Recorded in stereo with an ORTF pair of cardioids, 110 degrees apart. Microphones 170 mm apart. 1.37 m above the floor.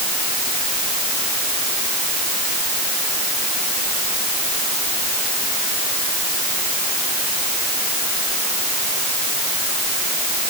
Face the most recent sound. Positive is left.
No sound to turn to.